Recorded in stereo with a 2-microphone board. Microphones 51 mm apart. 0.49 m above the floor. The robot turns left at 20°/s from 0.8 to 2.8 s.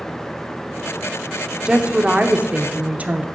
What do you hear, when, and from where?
1.6 s a woman speaking: 15° right (ahead or behind), 0.8 m; by 3.3 s 25° right (ahead or behind), 0.8 m